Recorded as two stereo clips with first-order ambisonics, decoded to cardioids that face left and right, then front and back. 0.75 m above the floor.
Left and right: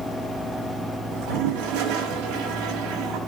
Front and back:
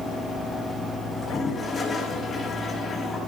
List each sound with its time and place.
1.1 s a toilet flushing: 80° right, 5 m